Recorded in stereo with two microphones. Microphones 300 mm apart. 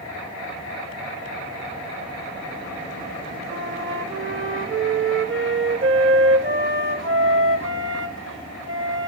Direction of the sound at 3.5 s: 40° right (ahead or behind).